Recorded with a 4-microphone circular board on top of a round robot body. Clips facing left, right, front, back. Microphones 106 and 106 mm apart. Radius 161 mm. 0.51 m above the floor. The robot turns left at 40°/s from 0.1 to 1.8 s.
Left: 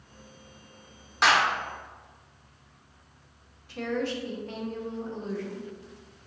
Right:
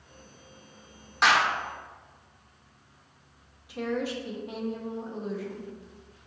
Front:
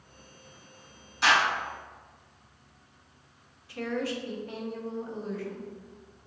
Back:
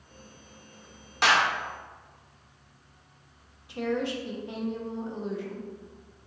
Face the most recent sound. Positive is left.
turn(degrees=-150)